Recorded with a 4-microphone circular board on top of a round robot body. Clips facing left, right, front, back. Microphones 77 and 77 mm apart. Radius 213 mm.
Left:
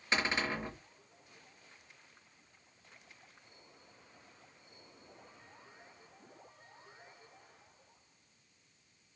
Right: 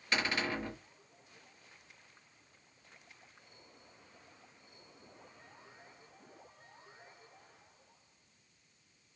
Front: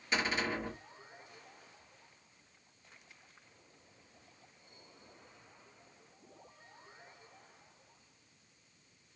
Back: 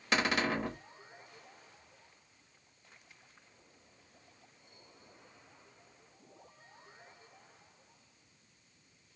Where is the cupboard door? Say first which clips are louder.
Left 1 dB, back 3 dB; 160° left, 0.9 m.